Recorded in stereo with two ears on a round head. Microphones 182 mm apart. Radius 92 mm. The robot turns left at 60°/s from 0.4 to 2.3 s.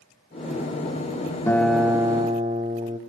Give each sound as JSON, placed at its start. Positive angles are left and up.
{"t": 1.5, "sound": "a guitar", "azimuth_deg": 15, "distance_m": 1.3}